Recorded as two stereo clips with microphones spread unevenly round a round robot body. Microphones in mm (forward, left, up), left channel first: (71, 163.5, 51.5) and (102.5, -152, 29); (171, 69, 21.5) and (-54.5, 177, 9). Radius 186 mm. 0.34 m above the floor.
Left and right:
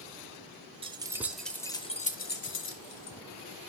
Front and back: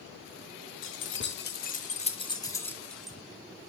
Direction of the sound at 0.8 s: 20° right.